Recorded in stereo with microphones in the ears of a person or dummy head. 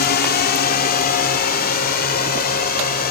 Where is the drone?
50° left (ahead or behind).